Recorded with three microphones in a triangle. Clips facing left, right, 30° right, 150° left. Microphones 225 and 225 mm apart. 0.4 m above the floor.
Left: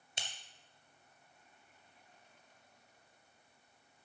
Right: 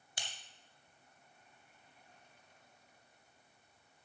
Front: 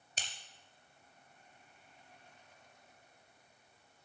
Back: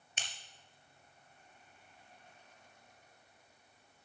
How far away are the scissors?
About 2 m.